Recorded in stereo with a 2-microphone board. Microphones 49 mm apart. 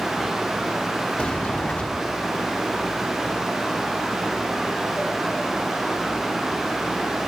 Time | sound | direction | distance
1.2 | a sliding door | 25° left (ahead or behind) | ?